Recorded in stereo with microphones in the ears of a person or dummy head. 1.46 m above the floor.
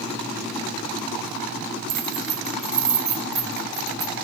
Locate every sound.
1.9 s keys jangling: 25° right (ahead or behind), 1.0 m; by 4.2 s 20° left (ahead or behind), 1.7 m